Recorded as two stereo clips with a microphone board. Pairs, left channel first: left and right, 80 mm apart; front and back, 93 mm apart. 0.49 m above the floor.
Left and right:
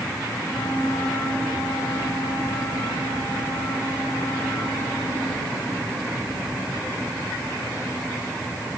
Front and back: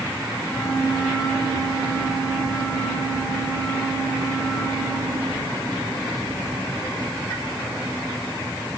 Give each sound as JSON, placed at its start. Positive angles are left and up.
{"t": 0.4, "sound": "a flute", "azimuth_deg": 55, "distance_m": 10.0}